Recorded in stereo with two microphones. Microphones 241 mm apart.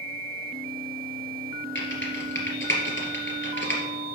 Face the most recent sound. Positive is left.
turn(degrees=50)  # may be behind; listen again after turning